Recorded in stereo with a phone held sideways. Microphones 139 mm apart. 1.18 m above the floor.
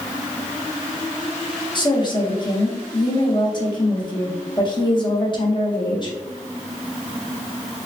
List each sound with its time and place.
1.8 s a woman speaking: 35° left (ahead or behind), 1.0 m